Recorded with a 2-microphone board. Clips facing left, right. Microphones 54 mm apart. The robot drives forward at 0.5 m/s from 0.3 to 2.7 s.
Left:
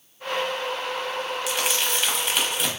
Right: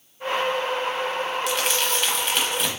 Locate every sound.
1.5 s crumpling: 5° left (ahead or behind), 0.8 m